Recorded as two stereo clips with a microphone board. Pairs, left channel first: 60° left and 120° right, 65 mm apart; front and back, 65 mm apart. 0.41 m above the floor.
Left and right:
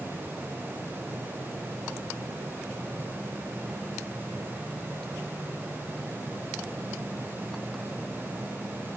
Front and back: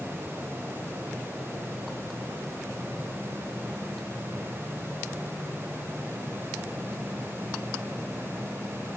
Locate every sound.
Only background noise.